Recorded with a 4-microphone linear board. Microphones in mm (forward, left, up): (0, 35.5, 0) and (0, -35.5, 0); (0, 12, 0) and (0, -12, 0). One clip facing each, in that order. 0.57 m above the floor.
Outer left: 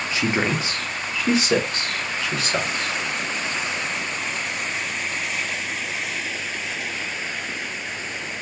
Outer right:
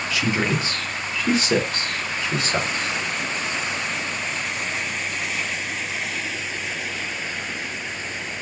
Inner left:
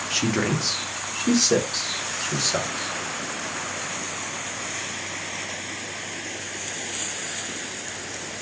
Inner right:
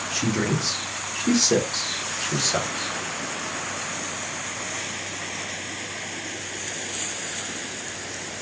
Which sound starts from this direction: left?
A man speaking, at 0.1 s.